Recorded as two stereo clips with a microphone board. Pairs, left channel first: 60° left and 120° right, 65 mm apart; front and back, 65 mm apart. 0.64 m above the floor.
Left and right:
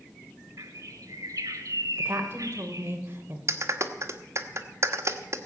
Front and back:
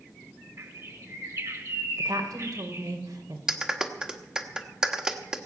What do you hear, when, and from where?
0.6 s a bird: 145° right, 1.8 m
2.0 s a woman speaking: 170° right, 2.5 m
3.5 s a clap: 105° right, 1.3 m